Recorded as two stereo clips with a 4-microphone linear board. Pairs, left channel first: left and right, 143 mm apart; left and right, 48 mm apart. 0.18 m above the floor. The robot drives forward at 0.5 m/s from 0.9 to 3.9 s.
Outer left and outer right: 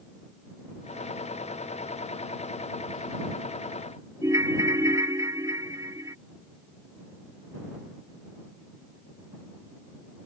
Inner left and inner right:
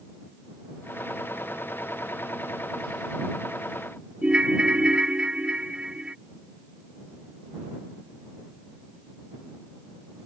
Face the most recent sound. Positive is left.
turn(degrees=-25)  # may be behind; listen again after turning